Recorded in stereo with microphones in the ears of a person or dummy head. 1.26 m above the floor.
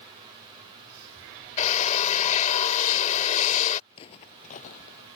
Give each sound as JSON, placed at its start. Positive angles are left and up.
{"t": 1.6, "sound": "a drill", "side_deg": 40}
{"t": 3.9, "sound": "footsteps", "side_deg": 30}